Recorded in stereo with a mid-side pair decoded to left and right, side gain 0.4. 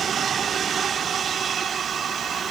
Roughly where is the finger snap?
I don't hear a finger snap.